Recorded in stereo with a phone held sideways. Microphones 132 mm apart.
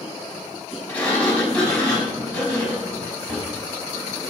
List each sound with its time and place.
0.9 s a sliding door: 10° left (ahead or behind), 5.5 m